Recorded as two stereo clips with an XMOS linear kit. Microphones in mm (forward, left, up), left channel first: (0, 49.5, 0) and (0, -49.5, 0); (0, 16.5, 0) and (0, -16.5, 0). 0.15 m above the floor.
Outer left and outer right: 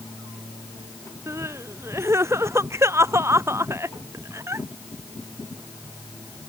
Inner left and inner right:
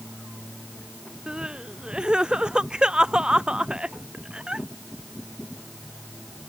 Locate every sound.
1.3 s crying: 30° right (ahead or behind)